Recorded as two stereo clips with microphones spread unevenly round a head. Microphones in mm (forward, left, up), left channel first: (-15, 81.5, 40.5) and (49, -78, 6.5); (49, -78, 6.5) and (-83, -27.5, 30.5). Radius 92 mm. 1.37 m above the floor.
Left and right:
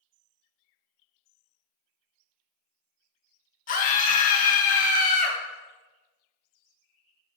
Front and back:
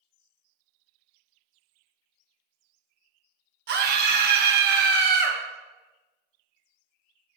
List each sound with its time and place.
3.7 s a scream: 160° left, 1.6 m